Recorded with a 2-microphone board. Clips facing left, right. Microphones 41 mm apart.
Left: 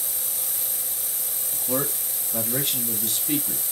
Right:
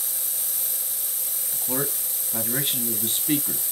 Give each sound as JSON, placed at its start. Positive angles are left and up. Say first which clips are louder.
{"t": 1.5, "sound": "a man speaking", "louder": "left 2 dB", "side_deg": -5, "distance_m": 2.5}